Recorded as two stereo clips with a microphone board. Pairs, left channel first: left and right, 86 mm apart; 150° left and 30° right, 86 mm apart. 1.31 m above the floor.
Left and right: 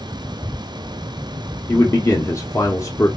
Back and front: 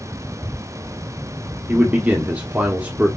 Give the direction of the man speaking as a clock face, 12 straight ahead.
11 o'clock.